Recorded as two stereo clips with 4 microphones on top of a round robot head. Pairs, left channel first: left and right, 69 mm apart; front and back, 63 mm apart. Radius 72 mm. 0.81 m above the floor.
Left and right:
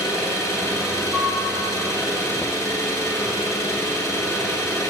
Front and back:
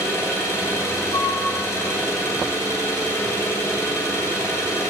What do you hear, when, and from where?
0.0 s an engine running: 45° left, 7.5 m
1.1 s a flute: 10° left, 10 m